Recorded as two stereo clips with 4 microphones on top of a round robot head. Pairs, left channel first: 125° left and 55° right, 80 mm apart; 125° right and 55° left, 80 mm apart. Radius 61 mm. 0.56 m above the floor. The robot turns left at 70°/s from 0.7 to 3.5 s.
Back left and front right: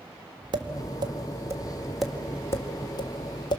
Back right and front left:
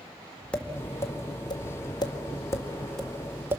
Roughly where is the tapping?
Ahead right.